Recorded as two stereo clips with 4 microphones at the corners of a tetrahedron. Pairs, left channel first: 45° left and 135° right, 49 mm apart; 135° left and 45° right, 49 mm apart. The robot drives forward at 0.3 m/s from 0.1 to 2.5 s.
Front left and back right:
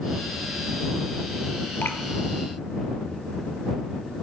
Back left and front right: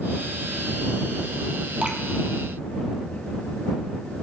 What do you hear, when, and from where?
1.8 s dripping: 20° left, 1.2 m